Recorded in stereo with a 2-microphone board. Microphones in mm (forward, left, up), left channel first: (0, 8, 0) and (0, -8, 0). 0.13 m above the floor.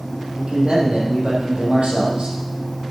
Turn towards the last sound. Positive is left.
turn(degrees=-70)  # may be behind; listen again after turning